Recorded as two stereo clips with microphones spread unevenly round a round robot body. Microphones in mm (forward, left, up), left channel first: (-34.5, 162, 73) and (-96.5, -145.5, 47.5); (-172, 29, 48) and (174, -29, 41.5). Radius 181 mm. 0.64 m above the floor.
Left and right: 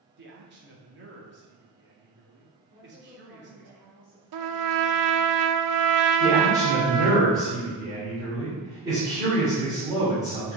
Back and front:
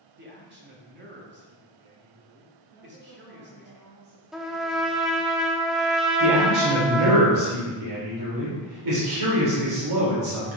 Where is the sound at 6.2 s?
25° right, 3 m.